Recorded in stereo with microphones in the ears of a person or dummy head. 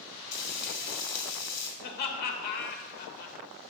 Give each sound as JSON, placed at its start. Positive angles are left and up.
{"t": 0.3, "sound": "frying", "side_deg": 60, "distance_m": 1.9}
{"t": 1.8, "sound": "laughter", "side_deg": 45, "distance_m": 1.0}